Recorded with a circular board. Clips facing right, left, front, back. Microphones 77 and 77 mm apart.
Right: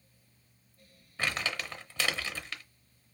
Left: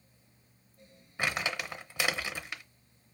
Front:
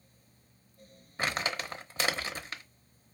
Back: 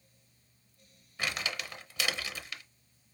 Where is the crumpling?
25° left, 0.7 m.